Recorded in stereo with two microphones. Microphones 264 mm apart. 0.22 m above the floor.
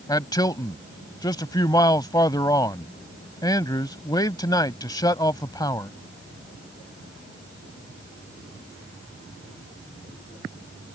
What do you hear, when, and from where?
0.1 s a man speaking: 15° left (ahead or behind)